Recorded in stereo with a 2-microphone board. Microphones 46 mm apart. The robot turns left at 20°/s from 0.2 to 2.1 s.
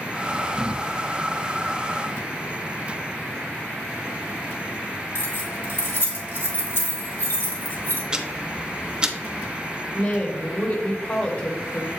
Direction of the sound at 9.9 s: 40° left (ahead or behind).